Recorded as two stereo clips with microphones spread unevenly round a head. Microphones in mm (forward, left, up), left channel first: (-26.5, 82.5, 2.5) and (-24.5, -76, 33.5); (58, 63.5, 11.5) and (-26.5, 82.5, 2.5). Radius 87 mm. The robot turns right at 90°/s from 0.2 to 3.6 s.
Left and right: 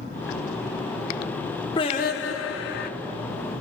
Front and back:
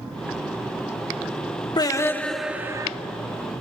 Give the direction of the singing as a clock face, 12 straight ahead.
11 o'clock.